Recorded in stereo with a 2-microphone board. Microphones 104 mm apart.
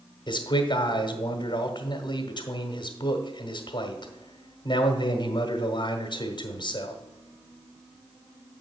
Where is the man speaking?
50° left (ahead or behind), 1.1 m.